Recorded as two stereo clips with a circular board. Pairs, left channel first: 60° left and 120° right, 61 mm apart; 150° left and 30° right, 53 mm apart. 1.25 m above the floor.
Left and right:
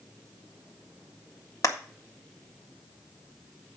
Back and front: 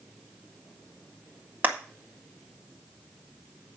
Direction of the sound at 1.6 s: 30° left.